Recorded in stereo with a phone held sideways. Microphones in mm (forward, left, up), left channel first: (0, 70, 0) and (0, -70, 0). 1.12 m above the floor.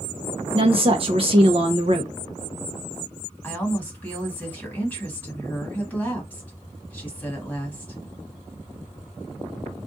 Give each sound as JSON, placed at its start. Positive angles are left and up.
{"t": 0.5, "sound": "a woman speaking", "side_deg": -40, "distance_m": 0.7}
{"t": 3.4, "sound": "a woman speaking", "side_deg": 15, "distance_m": 1.6}